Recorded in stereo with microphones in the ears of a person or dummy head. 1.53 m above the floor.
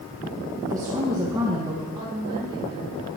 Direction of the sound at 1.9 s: 25° right (ahead or behind).